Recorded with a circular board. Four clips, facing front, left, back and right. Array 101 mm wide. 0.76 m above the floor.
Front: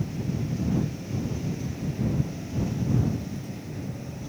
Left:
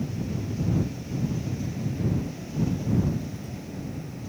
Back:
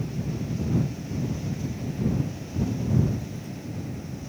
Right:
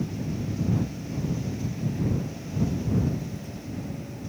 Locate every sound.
Only background noise.